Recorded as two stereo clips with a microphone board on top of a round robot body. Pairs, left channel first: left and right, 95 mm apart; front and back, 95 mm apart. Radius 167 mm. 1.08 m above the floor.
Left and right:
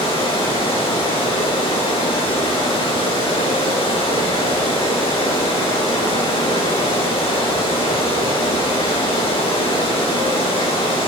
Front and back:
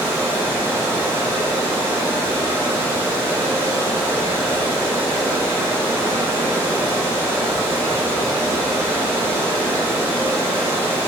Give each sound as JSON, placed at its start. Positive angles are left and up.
{"t": 0.0, "sound": "running water", "azimuth_deg": 120, "distance_m": 4.5}